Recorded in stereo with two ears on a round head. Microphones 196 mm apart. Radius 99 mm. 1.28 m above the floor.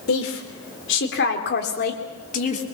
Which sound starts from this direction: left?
A woman speaking, at 0.1 s.